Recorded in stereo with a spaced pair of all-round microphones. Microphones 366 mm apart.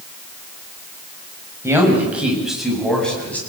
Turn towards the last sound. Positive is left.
turn(degrees=5)  # may be behind; listen again after turning